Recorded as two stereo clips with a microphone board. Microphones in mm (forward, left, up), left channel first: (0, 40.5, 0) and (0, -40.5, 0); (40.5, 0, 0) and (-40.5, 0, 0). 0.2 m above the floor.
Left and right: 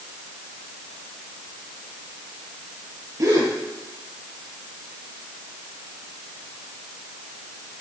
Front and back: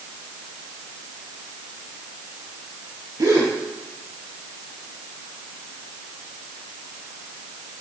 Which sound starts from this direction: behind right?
A gasp, at 3.2 s.